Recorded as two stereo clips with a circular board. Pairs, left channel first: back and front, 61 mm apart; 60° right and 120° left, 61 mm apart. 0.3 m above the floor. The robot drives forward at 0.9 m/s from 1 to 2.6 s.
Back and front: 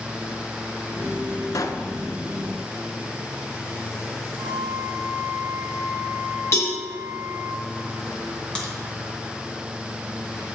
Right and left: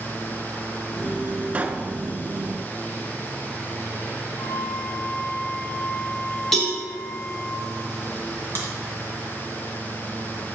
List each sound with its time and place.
1.5 s a pop: 175° right, 0.5 m; by 1.9 s straight behind, 0.8 m
4.4 s a flute: 15° left, 0.8 m
6.5 s a cowbell: 145° right, 2 m
8.6 s a crack: 105° right, 2 m